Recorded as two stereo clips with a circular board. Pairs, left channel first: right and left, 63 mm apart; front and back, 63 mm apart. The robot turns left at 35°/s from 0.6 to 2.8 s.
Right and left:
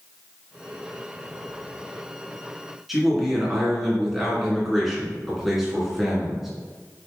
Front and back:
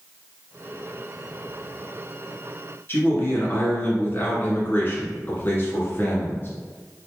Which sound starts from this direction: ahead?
A man speaking, at 2.9 s.